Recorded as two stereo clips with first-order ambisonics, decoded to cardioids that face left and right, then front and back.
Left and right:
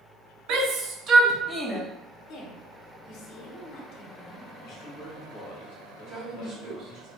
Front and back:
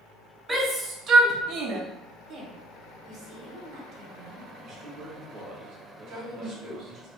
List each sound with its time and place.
0.5 s a shout: 105° right, 0.7 m; by 1.8 s 175° left, 0.6 m
2.3 s a woman speaking: 135° left, 0.8 m
4.6 s a man speaking: 130° left, 1.0 m
6.1 s a woman speaking: 160° right, 2.0 m